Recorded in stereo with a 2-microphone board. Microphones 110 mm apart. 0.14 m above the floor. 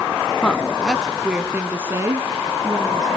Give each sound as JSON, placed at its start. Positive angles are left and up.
{"t": 0.4, "sound": "a woman speaking", "side_deg": 10, "distance_m": 1.5}